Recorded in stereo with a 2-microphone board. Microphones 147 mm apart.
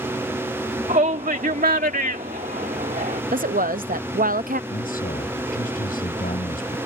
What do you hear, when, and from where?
0.9 s a shout: 60° right (ahead or behind); by 3.2 s 75° right (ahead or behind)
3.3 s a woman speaking: 70° right (ahead or behind)
4.7 s a man speaking: 80° left